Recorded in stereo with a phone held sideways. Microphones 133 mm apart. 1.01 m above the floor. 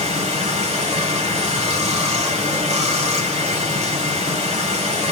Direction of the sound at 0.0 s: 50° right (ahead or behind).